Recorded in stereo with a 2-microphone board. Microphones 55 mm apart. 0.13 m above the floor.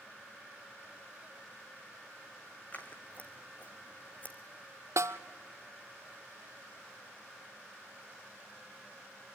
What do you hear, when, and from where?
2.7 s scissors: 30° left (ahead or behind), 1.8 m
5.0 s a snare drum: 80° right, 0.7 m